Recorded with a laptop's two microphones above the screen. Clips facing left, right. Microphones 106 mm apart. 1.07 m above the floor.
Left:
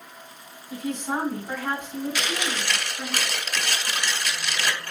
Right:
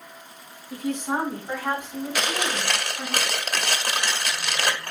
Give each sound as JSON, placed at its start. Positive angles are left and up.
{"t": 0.7, "sound": "a woman speaking", "side_deg": -5, "distance_m": 4.5}
{"t": 2.1, "sound": "chewing", "side_deg": -50, "distance_m": 1.5}